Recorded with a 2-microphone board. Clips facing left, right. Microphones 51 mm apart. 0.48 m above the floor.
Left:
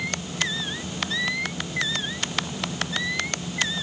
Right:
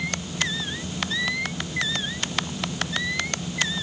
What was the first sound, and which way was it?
Only background noise.